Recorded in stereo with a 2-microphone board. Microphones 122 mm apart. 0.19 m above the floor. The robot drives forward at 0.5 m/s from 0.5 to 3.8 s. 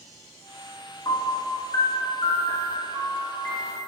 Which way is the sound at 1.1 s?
35° left (ahead or behind).